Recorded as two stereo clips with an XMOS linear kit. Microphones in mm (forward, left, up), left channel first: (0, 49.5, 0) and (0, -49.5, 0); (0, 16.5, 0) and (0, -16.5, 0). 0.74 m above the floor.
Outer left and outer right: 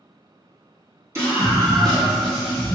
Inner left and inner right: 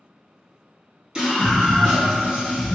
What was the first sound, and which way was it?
A scream, 30° right (ahead or behind).